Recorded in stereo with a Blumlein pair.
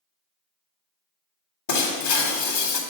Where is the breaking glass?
60° left, 1.4 m.